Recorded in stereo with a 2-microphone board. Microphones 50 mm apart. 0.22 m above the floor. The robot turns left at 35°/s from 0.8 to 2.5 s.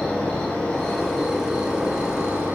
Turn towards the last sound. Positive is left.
turn(degrees=-40)